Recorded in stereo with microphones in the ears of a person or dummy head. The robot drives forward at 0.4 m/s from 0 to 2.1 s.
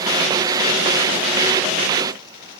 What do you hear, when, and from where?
Only background noise.